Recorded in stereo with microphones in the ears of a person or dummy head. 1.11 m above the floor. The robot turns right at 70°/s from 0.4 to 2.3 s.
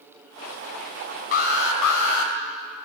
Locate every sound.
1.3 s an alarm: 70° left, 4.5 m; by 2.3 s 140° left, 4.5 m